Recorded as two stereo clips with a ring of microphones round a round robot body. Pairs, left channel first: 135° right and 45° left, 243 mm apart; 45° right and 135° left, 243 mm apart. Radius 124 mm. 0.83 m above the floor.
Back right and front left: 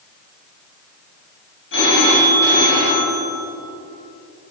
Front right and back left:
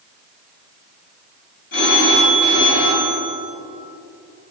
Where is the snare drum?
I don't hear a snare drum.